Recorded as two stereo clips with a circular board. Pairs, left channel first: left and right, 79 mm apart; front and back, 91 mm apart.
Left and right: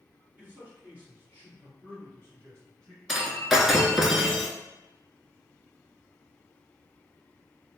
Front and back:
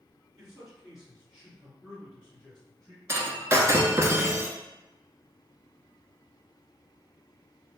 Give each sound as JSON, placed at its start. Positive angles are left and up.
{"t": 0.4, "sound": "a man speaking", "azimuth_deg": -100, "distance_m": 1.8}
{"t": 3.1, "sound": "breaking glass", "azimuth_deg": -175, "distance_m": 0.5}